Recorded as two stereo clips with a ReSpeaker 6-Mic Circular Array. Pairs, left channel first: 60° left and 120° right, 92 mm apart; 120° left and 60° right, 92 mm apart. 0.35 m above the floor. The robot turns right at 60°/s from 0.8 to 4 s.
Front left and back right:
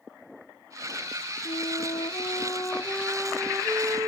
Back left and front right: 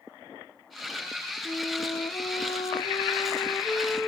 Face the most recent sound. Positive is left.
turn(degrees=-160)